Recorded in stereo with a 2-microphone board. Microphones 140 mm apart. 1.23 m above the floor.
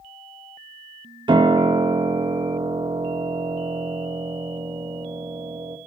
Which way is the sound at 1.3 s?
35° right (ahead or behind).